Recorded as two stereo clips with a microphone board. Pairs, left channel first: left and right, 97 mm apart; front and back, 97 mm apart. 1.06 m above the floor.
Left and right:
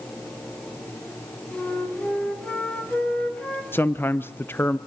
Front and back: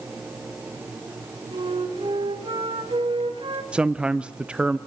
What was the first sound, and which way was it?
A flute, 165° left.